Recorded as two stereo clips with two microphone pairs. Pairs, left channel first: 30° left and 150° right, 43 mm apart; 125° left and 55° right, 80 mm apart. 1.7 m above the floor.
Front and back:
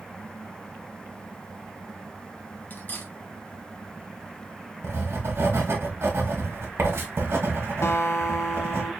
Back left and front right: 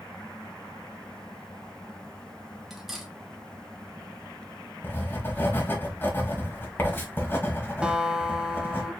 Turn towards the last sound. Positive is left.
turn(degrees=25)